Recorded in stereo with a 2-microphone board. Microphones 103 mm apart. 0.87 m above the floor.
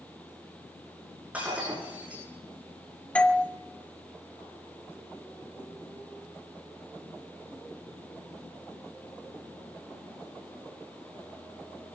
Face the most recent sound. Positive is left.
turn(degrees=10)  # may be behind; listen again after turning